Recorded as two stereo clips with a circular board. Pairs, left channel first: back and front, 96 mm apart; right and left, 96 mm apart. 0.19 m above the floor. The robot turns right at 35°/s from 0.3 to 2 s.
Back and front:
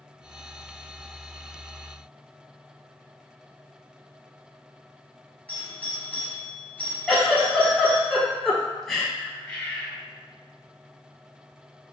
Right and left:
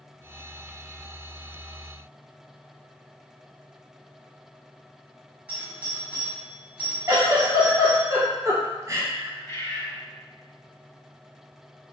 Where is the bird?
110° right, 1.6 m.